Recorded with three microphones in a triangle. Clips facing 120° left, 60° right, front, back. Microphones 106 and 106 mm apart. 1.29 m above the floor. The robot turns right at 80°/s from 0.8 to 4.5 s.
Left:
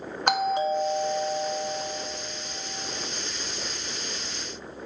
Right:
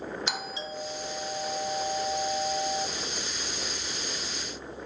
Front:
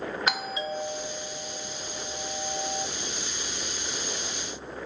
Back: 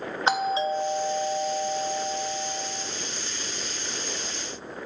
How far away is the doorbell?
About 0.6 m.